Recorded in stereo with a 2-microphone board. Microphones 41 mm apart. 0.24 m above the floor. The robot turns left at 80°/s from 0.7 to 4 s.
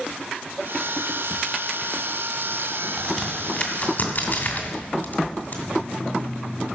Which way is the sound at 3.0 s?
Centre (ahead or behind).